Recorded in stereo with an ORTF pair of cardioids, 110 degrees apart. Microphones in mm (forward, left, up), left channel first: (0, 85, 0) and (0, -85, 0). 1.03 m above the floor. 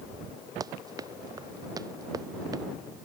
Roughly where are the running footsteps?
Ahead.